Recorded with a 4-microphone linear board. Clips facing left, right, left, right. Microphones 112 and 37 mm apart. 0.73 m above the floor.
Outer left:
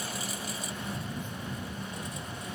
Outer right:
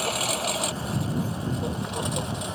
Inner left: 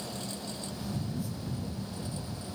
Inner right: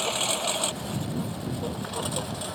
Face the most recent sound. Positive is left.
turn(degrees=-80)